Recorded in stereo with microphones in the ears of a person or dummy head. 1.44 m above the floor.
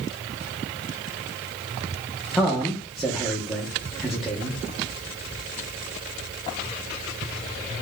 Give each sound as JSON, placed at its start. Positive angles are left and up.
{"t": 2.4, "sound": "a man speaking", "side_deg": 0, "distance_m": 0.7}